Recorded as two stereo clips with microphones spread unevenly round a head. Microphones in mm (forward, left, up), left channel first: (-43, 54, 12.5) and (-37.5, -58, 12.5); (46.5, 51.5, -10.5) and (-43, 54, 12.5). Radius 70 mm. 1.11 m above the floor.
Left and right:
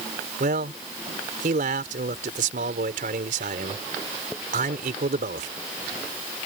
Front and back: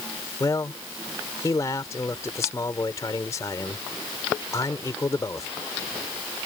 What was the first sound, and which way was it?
A man speaking, 70° right.